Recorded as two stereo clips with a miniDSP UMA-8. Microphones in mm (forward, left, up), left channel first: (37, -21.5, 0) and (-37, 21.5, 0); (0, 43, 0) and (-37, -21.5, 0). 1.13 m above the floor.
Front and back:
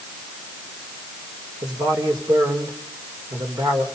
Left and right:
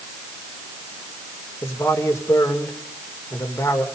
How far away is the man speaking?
About 4 m.